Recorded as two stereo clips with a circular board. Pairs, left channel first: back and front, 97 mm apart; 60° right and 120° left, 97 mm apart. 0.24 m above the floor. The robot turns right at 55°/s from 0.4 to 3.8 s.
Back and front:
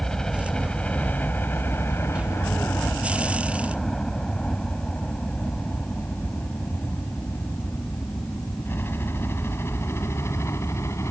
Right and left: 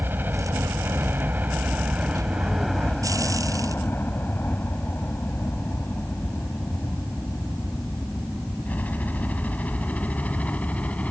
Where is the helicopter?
110° left; by 11.1 s 130° right.